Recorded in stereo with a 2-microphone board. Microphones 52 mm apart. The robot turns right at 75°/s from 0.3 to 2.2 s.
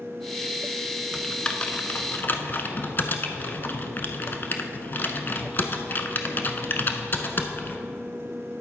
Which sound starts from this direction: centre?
Typing on a keyboard, at 1.1 s.